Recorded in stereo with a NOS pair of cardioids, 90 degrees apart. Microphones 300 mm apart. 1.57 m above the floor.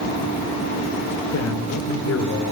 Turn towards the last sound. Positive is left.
turn(degrees=50)